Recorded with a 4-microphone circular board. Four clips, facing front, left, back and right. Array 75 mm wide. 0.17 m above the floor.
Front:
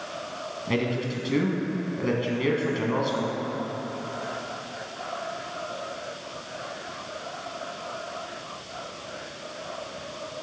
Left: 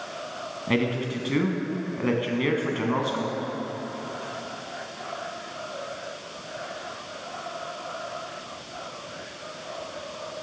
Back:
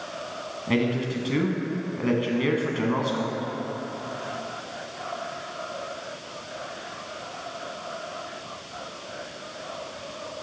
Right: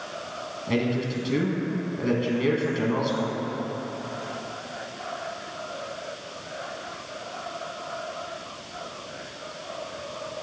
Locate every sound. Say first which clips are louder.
0.7 s a man speaking: even, back 3 dB; 110° left, 1.1 m